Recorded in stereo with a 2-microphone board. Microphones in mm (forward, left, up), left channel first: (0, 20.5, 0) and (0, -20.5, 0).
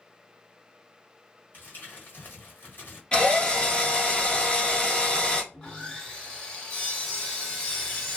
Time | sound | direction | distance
1.5 | crumpling | 55° left (ahead or behind) | 1.4 m
3.1 | a drill | 20° left (ahead or behind) | 1.0 m
5.5 | sawing | 20° left (ahead or behind) | 1.3 m